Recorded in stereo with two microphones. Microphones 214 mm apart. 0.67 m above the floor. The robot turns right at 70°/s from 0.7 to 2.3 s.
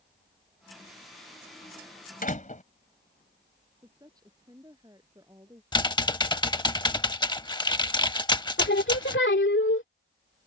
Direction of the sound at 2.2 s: 45° left (ahead or behind).